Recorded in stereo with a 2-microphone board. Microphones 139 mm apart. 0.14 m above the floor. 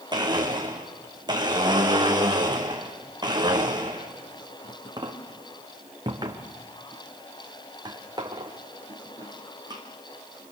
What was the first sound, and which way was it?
A blender, 30° right (ahead or behind).